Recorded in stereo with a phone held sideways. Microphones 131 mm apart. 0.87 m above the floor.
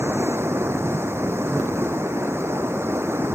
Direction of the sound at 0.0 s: 15° right (ahead or behind).